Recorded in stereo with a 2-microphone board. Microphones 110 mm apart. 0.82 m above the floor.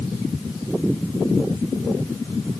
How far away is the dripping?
I don't hear dripping.